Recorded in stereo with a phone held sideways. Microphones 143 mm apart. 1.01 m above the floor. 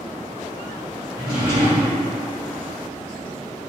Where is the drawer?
35° right (ahead or behind), 1.5 m.